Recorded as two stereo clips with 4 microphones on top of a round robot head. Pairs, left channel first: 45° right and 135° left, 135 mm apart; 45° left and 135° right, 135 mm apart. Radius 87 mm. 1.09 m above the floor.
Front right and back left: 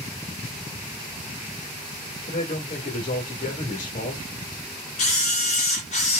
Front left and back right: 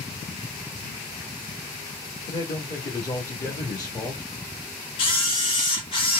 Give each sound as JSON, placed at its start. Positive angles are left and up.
{"t": 2.3, "sound": "a man speaking", "azimuth_deg": -10, "distance_m": 1.8}
{"t": 5.0, "sound": "a camera shutter", "azimuth_deg": -5, "distance_m": 1.6}